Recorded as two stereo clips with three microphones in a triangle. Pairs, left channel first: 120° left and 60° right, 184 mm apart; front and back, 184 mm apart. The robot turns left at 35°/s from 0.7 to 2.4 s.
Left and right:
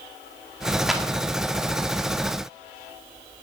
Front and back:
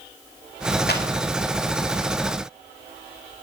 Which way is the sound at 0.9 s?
30° left.